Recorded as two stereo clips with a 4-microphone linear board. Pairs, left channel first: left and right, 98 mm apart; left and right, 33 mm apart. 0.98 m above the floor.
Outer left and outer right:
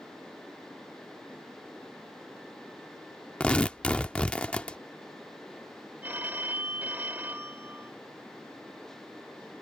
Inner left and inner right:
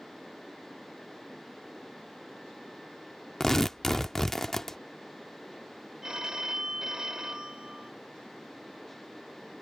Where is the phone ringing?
20° right (ahead or behind).